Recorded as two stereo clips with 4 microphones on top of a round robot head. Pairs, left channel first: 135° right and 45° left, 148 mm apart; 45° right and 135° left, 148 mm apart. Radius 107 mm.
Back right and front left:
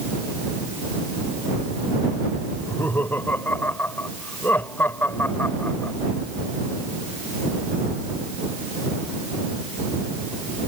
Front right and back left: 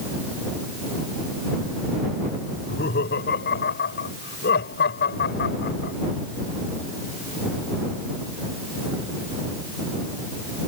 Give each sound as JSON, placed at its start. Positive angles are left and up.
{"t": 2.5, "sound": "laughter", "azimuth_deg": -55}